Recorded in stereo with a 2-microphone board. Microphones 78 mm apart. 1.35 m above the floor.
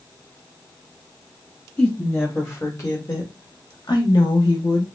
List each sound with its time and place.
1.8 s a woman speaking: 25° left (ahead or behind), 1.5 m; by 4.8 s 75° left (ahead or behind), 1.3 m